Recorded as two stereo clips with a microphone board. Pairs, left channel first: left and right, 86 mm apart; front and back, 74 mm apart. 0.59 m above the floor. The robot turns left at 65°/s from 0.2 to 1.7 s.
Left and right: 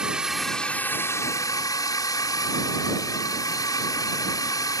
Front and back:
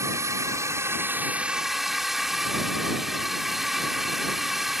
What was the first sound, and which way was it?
A drone, 165° right.